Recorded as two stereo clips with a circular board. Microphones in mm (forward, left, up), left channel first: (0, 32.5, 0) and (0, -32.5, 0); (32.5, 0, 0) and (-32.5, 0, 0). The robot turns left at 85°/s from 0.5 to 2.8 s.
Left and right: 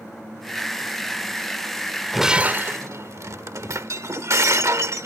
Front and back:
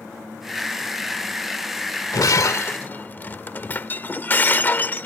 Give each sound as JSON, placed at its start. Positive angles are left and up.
{"t": 2.1, "sound": "breaking glass", "azimuth_deg": 0}